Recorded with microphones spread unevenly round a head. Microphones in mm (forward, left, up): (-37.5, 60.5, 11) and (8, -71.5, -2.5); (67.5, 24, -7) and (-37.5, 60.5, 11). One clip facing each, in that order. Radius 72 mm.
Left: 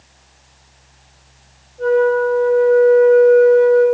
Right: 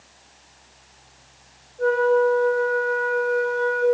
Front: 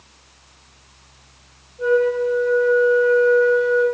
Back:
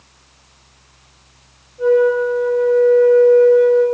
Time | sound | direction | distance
1.8 | a flute | 150° left | 1.8 m